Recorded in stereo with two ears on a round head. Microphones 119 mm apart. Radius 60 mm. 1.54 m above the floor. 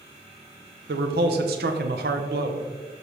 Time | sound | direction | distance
0.9 | a man speaking | 80° right | 1.0 m